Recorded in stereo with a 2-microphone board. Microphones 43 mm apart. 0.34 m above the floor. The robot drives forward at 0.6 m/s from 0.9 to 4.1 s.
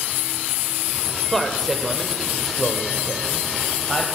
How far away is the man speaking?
About 1.1 m.